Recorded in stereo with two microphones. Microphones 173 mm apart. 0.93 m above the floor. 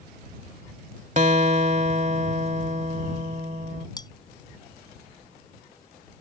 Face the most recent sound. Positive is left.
turn(degrees=25)  # may be behind; listen again after turning